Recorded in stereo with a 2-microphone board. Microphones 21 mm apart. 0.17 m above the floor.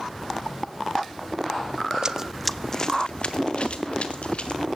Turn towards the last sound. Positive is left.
turn(degrees=65)  # may be behind; listen again after turning